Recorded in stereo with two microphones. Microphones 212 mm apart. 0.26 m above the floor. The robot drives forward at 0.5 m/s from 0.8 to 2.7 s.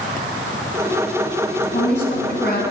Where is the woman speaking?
55° left (ahead or behind), 2.0 m; by 2.6 s 50° left (ahead or behind), 2 m.